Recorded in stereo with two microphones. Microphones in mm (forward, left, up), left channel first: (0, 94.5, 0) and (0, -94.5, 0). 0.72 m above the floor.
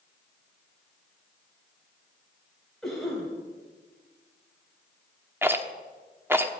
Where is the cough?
5° left (ahead or behind), 4 m.